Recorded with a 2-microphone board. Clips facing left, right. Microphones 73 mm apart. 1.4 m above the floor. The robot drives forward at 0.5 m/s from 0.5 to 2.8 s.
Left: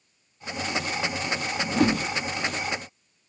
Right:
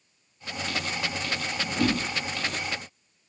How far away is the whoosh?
About 0.7 m.